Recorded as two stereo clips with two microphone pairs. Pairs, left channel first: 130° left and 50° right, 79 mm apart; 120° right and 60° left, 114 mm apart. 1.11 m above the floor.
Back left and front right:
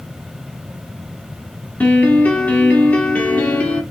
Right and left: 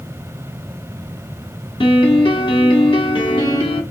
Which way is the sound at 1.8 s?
160° right.